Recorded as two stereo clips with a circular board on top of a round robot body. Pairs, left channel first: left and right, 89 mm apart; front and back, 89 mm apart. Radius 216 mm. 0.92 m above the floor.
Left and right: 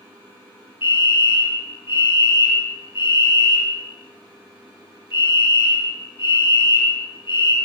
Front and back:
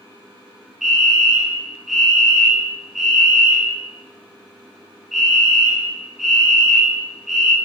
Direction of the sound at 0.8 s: 95° left.